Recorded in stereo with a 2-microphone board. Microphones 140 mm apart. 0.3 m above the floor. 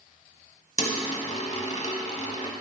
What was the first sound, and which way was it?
A dropped coin, 50° left (ahead or behind).